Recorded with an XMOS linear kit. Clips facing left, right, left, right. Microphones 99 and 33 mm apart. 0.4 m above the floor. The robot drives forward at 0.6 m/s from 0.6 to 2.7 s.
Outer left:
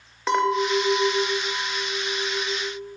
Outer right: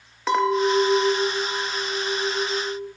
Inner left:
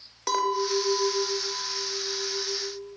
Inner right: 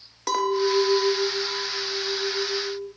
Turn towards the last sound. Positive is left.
turn(degrees=0)  # may be behind; listen again after turning